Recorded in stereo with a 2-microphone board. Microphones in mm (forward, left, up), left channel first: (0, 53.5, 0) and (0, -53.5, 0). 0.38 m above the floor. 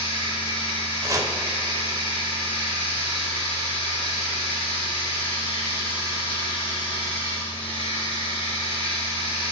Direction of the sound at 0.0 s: 20° left (ahead or behind).